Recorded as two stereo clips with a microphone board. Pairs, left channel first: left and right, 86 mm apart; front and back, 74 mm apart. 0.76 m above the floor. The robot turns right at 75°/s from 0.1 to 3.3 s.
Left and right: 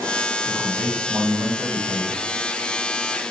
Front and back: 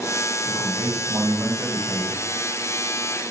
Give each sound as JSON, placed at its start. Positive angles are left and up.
{"t": 0.5, "sound": "a man speaking", "azimuth_deg": 160, "distance_m": 2.5}